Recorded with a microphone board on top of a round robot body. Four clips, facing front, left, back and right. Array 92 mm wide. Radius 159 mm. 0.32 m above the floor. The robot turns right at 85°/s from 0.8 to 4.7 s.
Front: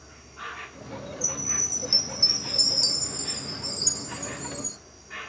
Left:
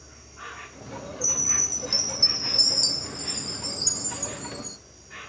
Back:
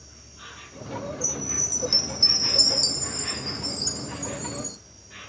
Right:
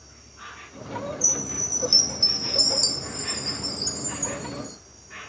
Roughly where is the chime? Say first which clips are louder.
Right 1 dB, back 2 dB; behind left.